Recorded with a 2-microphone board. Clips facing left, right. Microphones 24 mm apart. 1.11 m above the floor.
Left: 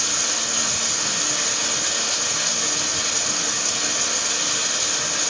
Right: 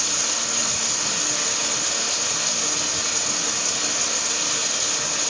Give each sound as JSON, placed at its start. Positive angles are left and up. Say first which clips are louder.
{"t": 0.0, "sound": "running water", "louder": "left 1 dB", "side_deg": 0, "distance_m": 2.0}